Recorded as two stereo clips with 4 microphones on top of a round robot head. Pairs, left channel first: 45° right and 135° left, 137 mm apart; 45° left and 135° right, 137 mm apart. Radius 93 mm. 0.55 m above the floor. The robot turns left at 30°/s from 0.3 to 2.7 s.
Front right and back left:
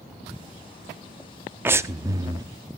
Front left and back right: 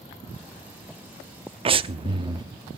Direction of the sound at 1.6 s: 155° right.